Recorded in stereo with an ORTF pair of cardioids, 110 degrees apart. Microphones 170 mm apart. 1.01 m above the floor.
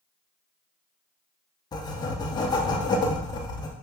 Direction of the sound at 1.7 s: 25° left.